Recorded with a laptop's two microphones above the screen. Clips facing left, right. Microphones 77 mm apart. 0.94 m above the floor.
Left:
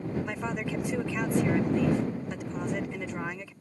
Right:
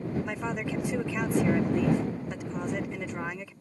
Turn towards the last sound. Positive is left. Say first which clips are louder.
# even
turn(degrees=-5)  # may be behind; listen again after turning